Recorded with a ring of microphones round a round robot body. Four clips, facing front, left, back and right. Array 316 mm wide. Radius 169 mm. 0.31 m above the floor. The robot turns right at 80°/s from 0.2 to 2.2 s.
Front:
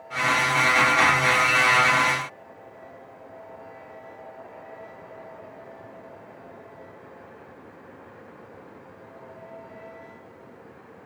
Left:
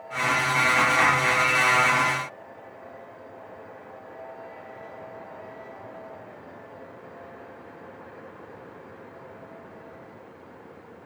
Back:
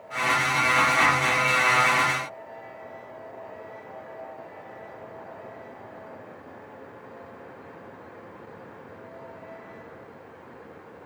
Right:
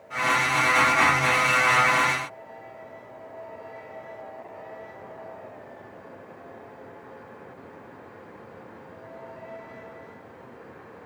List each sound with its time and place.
Only background noise.